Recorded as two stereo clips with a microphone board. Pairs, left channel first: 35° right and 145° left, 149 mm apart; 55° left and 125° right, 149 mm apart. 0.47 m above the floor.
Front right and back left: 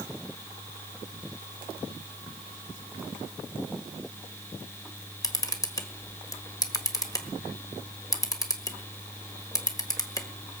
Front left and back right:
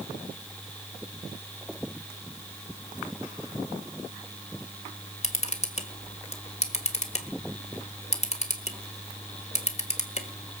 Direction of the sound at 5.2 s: 25° left.